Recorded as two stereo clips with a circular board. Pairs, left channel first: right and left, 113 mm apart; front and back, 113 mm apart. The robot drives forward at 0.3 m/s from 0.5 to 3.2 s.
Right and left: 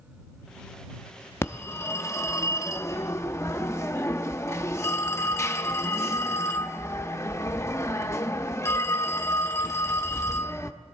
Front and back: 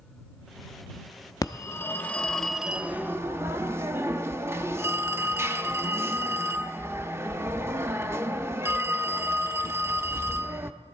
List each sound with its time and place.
1.4 s a phone ringing: 35° right, 0.6 m; by 10.7 s 135° right, 0.6 m